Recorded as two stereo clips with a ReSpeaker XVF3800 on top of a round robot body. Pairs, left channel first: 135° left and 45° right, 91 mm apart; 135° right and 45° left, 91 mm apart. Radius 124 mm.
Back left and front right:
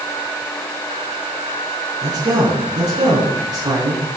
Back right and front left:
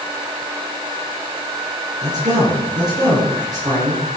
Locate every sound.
2.0 s a man speaking: straight ahead, 5 m